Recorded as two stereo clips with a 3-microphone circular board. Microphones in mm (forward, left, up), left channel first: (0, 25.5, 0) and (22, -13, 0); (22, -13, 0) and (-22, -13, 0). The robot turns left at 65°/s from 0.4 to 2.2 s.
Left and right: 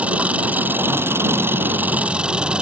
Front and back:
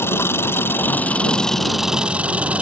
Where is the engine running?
5° right; by 2.6 s 120° right.